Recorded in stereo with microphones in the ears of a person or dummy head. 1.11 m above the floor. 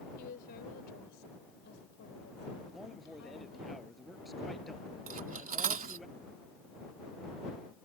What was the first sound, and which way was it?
A woman speaking, 50° left (ahead or behind).